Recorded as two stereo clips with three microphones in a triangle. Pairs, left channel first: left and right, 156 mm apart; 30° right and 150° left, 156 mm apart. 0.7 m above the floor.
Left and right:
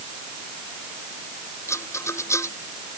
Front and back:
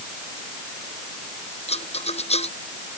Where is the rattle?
15° left.